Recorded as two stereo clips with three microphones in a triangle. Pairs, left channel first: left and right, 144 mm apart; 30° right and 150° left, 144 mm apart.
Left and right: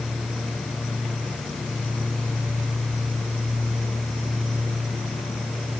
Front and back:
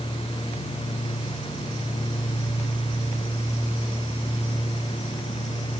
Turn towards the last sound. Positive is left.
No sound to turn to.